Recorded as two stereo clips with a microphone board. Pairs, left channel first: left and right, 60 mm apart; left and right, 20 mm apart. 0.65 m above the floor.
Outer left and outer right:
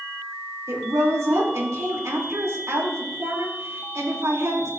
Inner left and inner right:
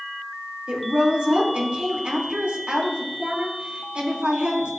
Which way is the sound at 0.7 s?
60° right (ahead or behind).